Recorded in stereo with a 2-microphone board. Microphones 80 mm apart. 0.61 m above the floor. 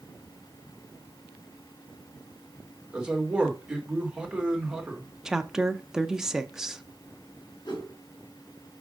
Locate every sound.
2.9 s a man speaking: 10° right (ahead or behind), 2 m
5.2 s a woman speaking: 5° right (ahead or behind), 0.5 m
7.6 s a whoosh: 60° left (ahead or behind), 5 m